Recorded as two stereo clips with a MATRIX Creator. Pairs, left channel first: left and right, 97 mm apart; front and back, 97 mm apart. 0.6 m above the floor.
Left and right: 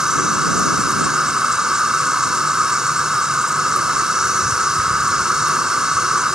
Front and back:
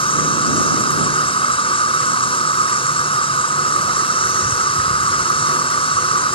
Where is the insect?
5° right.